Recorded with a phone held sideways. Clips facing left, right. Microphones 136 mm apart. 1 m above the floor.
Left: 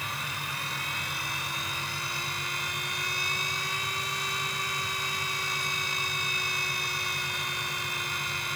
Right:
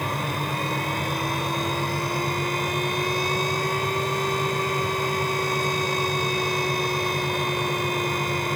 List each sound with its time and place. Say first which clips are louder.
0.0 s a fan: right 11 dB; 60° right (ahead or behind)